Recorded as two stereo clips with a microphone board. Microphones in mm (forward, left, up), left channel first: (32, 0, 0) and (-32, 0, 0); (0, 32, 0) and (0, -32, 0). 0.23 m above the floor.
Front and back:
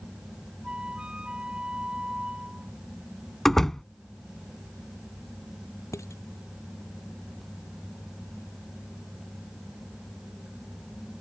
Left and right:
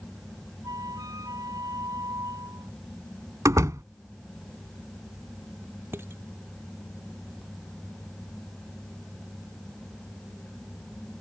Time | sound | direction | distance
0.6 | a flute | 105° right | ?
3.5 | a door slam | 85° right | ?
5.9 | dishes clattering | 40° right | ?